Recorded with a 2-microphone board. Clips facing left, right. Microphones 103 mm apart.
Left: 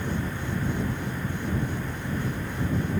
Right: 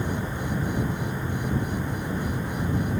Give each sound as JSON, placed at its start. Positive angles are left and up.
{"t": 0.0, "sound": "an insect", "side_deg": -15}